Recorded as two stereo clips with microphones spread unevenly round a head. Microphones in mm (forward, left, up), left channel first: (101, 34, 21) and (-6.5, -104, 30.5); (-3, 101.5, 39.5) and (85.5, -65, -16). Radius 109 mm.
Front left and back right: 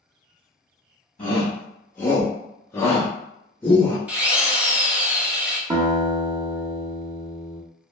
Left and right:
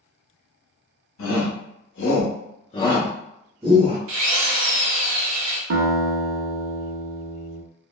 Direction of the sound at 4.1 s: 45° right.